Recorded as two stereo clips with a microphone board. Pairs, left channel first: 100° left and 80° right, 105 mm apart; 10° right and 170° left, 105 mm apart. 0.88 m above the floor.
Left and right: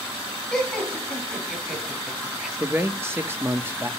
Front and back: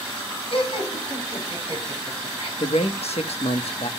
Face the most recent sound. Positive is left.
turn(degrees=-10)